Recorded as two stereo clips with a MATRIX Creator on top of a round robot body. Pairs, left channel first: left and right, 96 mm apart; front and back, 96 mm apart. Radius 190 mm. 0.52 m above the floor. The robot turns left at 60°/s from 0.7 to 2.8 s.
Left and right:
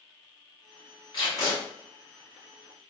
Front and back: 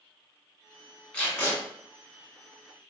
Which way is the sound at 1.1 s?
75° left.